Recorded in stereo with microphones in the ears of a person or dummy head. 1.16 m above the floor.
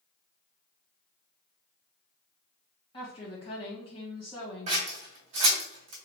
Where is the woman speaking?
35° left (ahead or behind), 1.4 m.